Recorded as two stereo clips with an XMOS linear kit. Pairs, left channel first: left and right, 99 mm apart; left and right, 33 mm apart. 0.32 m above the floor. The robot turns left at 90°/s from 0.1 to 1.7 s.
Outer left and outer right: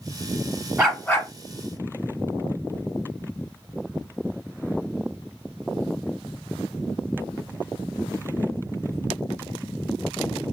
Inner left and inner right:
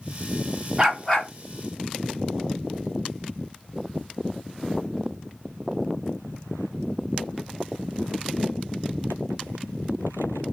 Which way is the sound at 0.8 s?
165° right.